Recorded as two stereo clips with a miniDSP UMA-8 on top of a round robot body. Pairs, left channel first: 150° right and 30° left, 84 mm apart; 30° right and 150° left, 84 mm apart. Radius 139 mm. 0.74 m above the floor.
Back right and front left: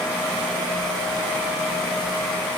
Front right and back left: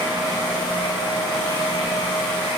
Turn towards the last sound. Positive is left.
No sound to turn to.